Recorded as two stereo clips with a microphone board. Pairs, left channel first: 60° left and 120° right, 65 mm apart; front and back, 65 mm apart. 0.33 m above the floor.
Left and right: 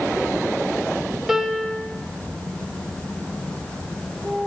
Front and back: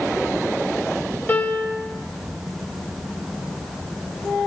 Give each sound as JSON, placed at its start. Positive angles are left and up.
{"t": 1.3, "sound": "a piano", "azimuth_deg": -40, "distance_m": 1.5}